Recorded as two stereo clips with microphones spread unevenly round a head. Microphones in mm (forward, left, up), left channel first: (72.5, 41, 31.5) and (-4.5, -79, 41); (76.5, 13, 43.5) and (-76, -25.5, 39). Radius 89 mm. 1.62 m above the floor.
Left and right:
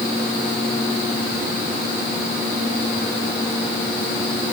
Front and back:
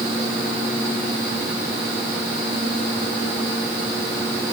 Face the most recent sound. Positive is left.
No sound to turn to.